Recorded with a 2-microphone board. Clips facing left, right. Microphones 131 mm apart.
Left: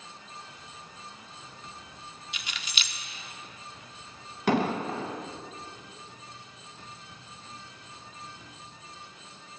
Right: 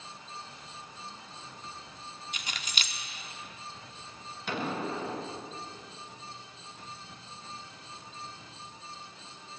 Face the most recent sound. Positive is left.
turn(degrees=75)  # may be behind; listen again after turning